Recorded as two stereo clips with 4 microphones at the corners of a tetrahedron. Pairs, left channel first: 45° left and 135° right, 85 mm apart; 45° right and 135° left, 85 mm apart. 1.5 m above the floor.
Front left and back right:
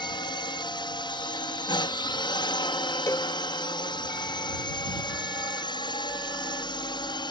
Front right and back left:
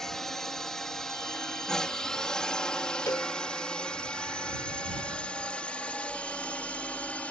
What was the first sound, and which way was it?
A drone, 40° left.